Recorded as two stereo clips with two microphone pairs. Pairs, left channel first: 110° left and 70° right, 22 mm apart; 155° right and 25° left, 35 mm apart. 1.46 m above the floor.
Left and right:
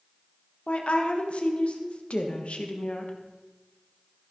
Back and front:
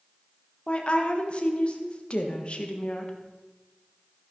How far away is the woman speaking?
About 1.4 m.